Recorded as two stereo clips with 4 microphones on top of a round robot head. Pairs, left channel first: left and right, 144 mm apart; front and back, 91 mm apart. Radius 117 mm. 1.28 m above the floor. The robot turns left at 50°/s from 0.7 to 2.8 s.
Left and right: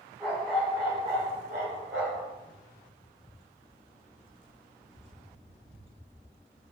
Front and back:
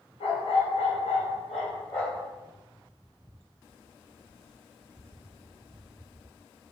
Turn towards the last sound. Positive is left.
turn(degrees=-110)